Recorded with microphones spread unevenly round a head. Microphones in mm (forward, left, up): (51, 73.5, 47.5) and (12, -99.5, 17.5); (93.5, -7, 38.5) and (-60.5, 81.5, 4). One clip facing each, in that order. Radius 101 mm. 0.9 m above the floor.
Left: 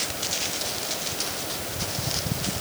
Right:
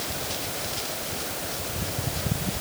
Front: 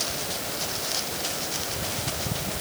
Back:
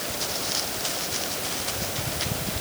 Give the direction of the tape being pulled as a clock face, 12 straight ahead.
No tape being pulled in this recording.